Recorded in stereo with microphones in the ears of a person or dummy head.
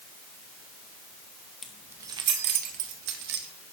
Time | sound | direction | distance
1.6 | keys jangling | centre (ahead or behind) | 0.6 m